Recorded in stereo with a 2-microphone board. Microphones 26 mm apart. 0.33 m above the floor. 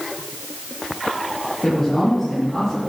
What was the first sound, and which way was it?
A man speaking, 5° left (ahead or behind).